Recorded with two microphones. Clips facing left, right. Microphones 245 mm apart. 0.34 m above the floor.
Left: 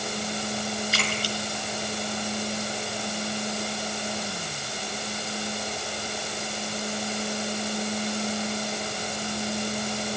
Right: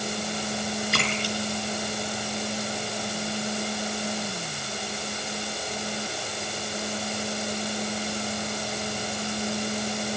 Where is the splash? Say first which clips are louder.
Right 2 dB; 60° right (ahead or behind), 5 m.